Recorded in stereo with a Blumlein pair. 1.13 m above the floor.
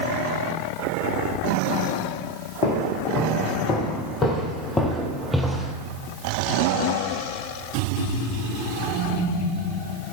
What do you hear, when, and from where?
2.6 s footsteps: 45° left, 4 m; by 5.8 s 15° right, 1.9 m